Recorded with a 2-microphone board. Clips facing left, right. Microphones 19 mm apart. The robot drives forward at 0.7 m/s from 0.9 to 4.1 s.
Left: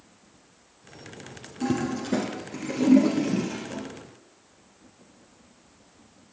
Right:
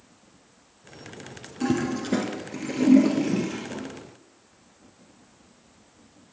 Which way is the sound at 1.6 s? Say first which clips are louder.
Right 2 dB; 15° right (ahead or behind).